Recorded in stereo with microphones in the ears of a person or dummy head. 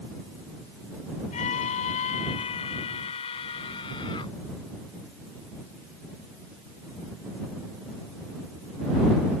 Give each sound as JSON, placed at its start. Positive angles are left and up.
{"t": 1.3, "sound": "a scream", "side_deg": 35}